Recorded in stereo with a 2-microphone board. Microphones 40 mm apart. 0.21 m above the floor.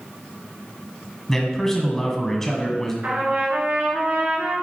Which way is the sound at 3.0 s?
50° right (ahead or behind).